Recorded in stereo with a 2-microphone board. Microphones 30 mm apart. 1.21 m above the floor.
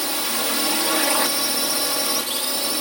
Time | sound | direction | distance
0.0 | a drone | 5° left (ahead or behind) | ?